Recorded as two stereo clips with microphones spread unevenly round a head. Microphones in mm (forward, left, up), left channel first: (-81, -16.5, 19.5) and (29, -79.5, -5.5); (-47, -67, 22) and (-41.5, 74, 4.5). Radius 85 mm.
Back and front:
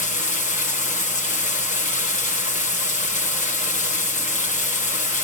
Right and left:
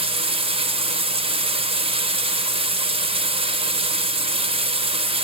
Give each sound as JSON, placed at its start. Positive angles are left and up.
{"t": 0.0, "sound": "running water", "azimuth_deg": 140, "distance_m": 1.4}